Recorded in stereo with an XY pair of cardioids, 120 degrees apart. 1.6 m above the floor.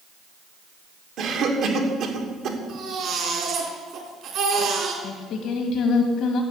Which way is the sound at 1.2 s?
65° right.